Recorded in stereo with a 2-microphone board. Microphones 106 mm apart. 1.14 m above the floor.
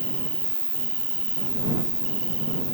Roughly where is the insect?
Centre.